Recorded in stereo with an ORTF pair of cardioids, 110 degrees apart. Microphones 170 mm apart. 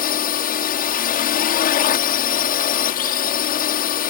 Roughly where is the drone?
Ahead left.